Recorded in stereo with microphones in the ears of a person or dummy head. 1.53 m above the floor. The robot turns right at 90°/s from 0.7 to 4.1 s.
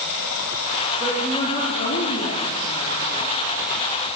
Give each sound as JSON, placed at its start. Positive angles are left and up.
{"t": 0.0, "sound": "running water", "azimuth_deg": 90, "distance_m": 0.9}
{"t": 1.0, "sound": "a woman speaking", "azimuth_deg": -15, "distance_m": 1.1}